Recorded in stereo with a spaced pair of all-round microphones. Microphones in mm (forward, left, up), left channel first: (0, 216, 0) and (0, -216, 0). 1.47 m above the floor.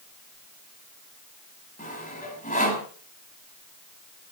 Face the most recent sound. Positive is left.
turn(degrees=15)  # may be behind; listen again after turning